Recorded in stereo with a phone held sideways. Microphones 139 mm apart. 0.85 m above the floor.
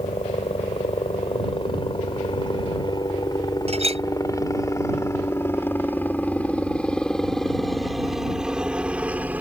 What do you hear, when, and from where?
0.0 s a helicopter: 45° left (ahead or behind); by 9.4 s 10° right (ahead or behind)
3.7 s a clink: 50° right (ahead or behind)